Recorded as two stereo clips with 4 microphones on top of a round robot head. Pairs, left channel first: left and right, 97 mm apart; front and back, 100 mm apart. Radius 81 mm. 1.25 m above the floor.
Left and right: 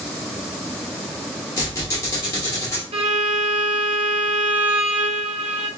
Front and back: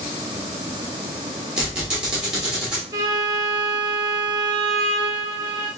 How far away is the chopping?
No chopping in this recording.